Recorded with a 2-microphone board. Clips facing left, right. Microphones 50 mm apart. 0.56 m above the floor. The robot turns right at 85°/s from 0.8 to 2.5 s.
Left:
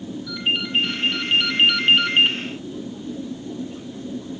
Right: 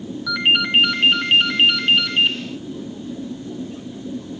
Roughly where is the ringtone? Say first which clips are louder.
Right 7 dB; right.